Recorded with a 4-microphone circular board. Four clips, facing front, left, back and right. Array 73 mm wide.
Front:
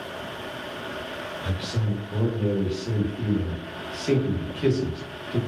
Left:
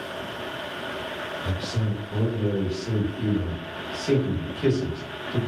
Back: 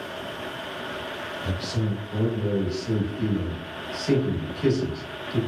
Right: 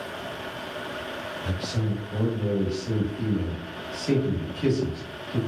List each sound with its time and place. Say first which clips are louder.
1.4 s a man speaking: right 2 dB, back 3 dB; 15° left, 0.9 m